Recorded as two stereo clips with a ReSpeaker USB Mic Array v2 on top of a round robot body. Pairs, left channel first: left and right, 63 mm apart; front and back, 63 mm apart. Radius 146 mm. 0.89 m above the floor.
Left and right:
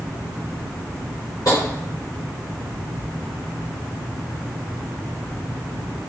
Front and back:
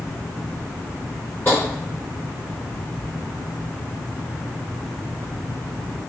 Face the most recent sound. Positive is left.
turn(degrees=60)